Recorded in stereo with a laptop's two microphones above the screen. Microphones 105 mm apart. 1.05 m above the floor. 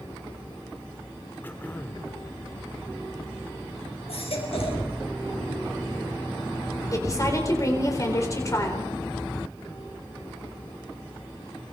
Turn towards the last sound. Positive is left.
turn(degrees=35)  # may be behind; listen again after turning